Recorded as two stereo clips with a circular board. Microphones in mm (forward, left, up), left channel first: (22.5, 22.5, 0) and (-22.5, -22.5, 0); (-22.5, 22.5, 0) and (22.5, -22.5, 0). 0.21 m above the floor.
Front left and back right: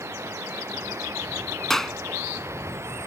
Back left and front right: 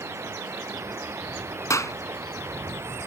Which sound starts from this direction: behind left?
A clap, at 1.7 s.